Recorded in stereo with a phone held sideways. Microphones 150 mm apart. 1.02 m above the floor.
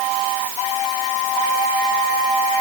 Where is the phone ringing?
No phone ringing in this recording.